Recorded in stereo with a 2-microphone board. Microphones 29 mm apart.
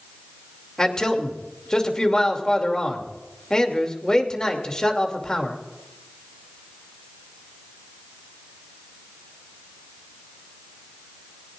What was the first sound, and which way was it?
A man speaking, 20° left (ahead or behind).